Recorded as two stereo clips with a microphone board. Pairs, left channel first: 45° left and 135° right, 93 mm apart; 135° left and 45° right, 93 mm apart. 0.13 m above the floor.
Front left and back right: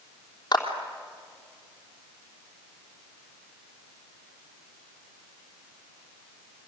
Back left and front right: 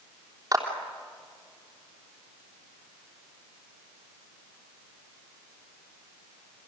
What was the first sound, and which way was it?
A clap, 5° left.